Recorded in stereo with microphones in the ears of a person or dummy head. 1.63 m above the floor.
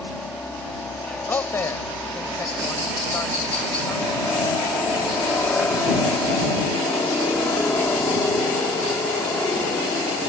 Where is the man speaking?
10° left (ahead or behind).